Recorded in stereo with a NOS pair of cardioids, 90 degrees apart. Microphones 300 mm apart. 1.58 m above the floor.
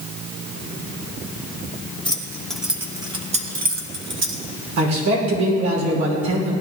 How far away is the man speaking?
About 5.5 m.